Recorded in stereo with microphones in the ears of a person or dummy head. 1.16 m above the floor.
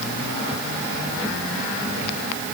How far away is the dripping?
No dripping in this recording.